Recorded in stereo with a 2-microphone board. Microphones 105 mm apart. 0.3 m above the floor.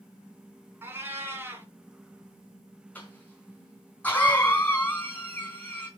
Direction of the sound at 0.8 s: 20° right (ahead or behind).